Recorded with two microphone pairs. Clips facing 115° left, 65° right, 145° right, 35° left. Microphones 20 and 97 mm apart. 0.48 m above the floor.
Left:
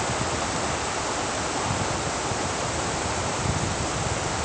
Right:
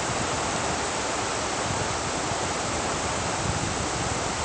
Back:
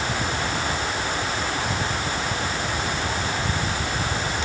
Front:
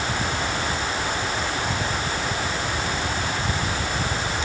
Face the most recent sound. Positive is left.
No sound to turn to.